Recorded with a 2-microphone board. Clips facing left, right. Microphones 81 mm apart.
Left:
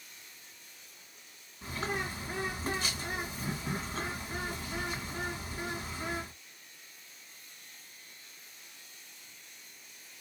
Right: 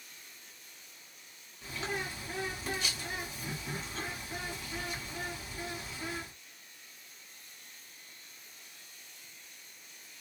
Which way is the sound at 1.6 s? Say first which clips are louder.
Left 2 dB; 40° left (ahead or behind).